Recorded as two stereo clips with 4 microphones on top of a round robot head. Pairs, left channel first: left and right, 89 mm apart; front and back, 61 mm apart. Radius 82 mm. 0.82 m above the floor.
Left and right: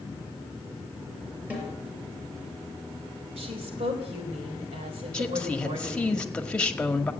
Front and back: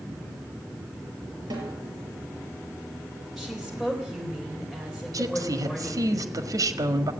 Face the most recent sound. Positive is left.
turn(degrees=170)